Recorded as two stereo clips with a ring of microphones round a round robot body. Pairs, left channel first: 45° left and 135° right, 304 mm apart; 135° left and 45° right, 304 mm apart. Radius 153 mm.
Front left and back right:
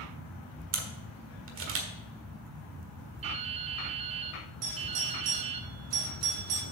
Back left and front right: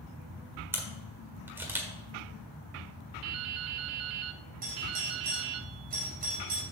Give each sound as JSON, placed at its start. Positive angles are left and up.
{"t": 0.7, "sound": "a camera shutter", "azimuth_deg": -125, "distance_m": 1.5}
{"t": 3.2, "sound": "dripping", "azimuth_deg": -65, "distance_m": 0.7}
{"t": 4.6, "sound": "a doorbell", "azimuth_deg": -105, "distance_m": 3.5}